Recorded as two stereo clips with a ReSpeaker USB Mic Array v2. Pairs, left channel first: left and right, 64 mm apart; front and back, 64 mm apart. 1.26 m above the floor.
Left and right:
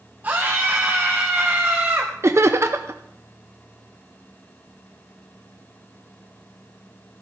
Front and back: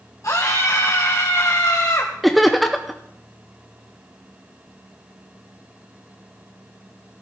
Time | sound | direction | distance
0.2 | a scream | 30° right | 1.3 m
2.2 | laughter | 90° right | 0.7 m